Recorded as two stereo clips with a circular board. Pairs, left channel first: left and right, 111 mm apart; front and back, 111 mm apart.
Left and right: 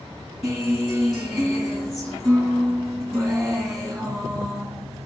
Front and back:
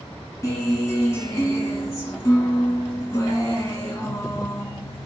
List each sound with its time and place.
0.4 s a guitar: 10° right, 1.6 m